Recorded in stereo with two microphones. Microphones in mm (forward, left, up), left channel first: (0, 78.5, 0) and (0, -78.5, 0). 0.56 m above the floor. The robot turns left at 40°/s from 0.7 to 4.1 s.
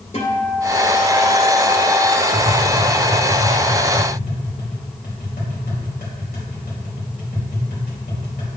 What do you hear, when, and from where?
0.1 s a guitar: 130° left, 1.7 m; by 2.1 s 75° left, 1.7 m
2.3 s tapping: 25° left (ahead or behind), 2.5 m; by 8.5 s 70° left (ahead or behind), 2.5 m